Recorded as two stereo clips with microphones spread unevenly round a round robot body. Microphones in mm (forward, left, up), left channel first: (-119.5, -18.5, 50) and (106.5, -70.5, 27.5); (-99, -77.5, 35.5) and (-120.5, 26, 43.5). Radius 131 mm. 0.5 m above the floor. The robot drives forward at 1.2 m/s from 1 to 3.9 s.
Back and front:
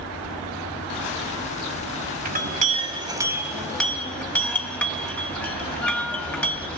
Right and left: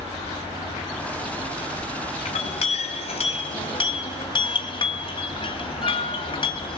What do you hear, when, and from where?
2.2 s a clink: 60° right, 2.5 m; by 6.8 s 110° right, 2.5 m